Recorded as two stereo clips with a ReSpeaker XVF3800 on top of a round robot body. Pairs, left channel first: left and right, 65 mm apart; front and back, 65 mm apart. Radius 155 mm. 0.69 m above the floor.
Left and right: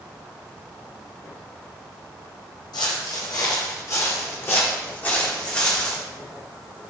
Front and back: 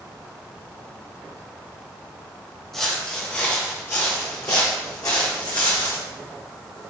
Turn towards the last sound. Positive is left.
turn(degrees=10)